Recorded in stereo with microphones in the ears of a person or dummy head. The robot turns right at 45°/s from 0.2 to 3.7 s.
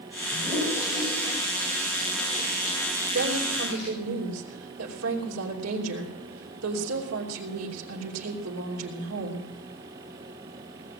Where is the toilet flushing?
35° right (ahead or behind), 7 m; by 3.9 s 60° left (ahead or behind), 7 m.